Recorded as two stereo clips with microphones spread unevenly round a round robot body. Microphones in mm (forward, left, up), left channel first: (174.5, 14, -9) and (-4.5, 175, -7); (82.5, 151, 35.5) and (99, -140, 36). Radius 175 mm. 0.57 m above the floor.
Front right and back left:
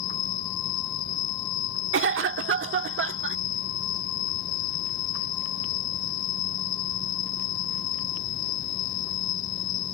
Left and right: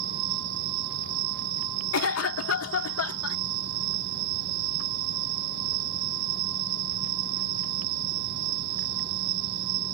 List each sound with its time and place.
0.0 s an insect: 65° right
1.9 s a cough: 120° left